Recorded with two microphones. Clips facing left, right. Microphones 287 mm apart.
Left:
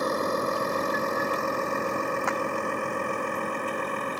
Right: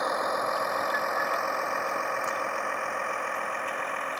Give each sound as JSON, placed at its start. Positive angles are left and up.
{"t": 0.0, "sound": "a vehicle", "side_deg": 35}
{"t": 2.3, "sound": "a clap", "side_deg": 75}